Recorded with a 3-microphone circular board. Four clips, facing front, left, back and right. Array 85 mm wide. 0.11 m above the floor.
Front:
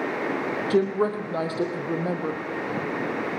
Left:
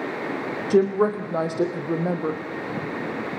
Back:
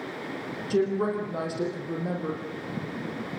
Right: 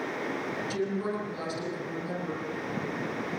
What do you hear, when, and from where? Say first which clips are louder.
0.7 s a woman speaking: left 14 dB, front 2 dB; 65° left, 4.5 m